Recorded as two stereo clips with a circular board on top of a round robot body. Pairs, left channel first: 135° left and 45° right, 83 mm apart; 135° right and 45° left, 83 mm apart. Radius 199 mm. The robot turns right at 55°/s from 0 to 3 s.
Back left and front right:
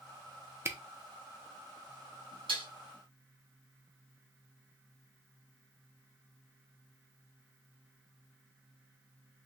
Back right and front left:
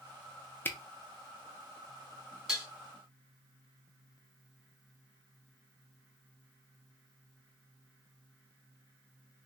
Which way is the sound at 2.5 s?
40° right.